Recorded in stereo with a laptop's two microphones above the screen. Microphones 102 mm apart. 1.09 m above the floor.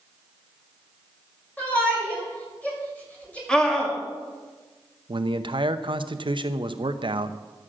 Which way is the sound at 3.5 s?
10° left (ahead or behind).